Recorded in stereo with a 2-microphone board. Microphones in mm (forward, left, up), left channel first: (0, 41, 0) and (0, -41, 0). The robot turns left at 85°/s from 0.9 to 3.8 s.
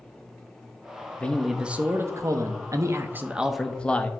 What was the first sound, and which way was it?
A man speaking, 25° left.